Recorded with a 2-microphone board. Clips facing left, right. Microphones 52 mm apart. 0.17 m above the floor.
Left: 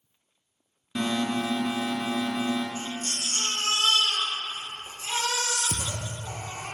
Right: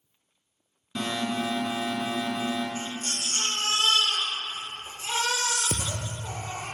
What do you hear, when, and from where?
0.9 s an alarm: 5° left (ahead or behind), 2 m
2.8 s a baby crying: 35° right (ahead or behind), 2.5 m
5.7 s a thud: 55° right (ahead or behind), 0.5 m